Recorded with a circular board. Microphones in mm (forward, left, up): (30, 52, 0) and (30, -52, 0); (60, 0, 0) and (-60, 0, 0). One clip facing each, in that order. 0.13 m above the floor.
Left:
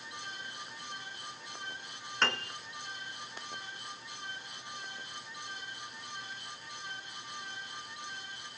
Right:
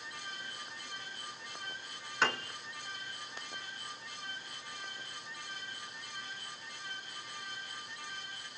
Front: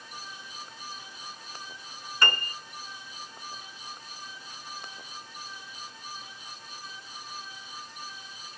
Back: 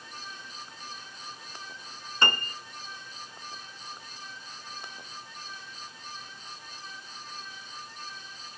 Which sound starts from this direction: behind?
A piano, at 2.2 s.